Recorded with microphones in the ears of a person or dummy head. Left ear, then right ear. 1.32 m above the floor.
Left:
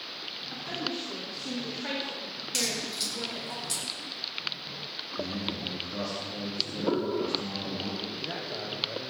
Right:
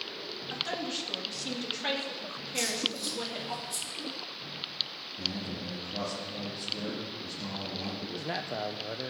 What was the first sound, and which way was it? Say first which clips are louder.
A woman speaking: right 2 dB; 40° right (ahead or behind).